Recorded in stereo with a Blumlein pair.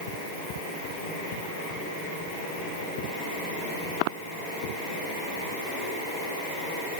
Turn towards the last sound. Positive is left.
No sound to turn to.